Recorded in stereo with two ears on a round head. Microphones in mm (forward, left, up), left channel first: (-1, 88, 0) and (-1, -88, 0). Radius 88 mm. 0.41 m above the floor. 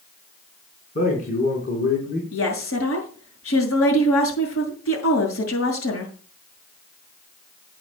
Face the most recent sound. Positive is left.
turn(degrees=80)